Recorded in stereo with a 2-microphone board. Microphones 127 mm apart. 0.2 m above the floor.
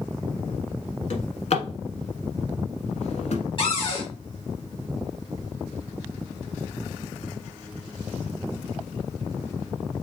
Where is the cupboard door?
45° left (ahead or behind), 2.5 m.